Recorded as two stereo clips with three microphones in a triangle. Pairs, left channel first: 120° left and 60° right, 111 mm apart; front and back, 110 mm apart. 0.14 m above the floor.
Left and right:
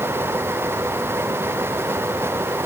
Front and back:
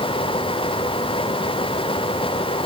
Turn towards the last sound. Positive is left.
No sound to turn to.